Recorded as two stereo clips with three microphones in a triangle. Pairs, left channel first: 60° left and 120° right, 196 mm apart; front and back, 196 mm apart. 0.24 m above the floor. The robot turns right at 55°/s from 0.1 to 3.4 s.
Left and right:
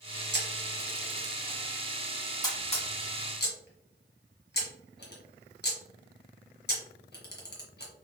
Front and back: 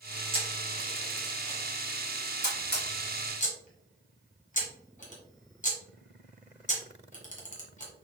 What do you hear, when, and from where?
0.3 s a camera shutter: 125° right, 1.4 m; by 7.9 s 45° left, 1.4 m